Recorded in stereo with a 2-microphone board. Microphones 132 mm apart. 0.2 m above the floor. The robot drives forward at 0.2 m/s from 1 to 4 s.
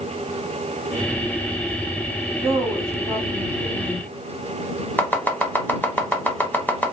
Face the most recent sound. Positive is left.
turn(degrees=15)  # may be behind; listen again after turning